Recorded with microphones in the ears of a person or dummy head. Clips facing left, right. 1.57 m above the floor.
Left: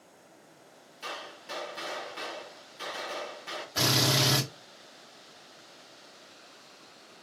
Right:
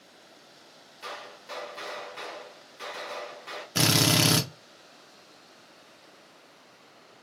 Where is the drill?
35° right (ahead or behind), 0.7 m.